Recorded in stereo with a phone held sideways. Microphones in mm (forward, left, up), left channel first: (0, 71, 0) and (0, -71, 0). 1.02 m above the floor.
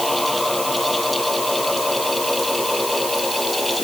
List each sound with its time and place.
0.0 s a fan: centre (ahead or behind)